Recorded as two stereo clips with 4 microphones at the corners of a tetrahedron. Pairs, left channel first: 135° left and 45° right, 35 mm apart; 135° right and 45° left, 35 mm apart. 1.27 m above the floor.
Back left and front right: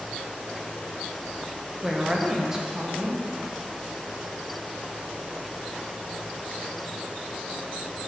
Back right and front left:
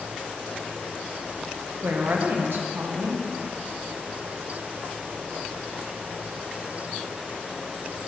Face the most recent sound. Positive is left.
turn(degrees=30)